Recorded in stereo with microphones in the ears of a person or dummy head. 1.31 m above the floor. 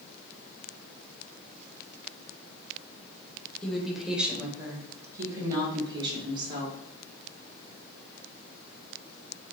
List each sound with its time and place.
3.6 s a woman speaking: 5° left (ahead or behind), 1.2 m; by 6.8 s 30° right (ahead or behind), 2.5 m